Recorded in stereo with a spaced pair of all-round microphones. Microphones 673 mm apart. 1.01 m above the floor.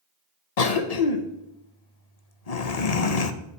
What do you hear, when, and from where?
0.6 s a cough: 60° left (ahead or behind), 0.9 m